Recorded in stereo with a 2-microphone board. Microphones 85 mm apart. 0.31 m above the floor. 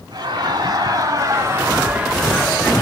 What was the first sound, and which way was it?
Laughter, 50° right (ahead or behind).